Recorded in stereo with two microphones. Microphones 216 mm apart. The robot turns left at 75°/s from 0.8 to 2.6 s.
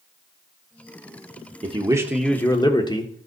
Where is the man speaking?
135° right, 1.0 m; by 3.3 s 150° left, 1.0 m.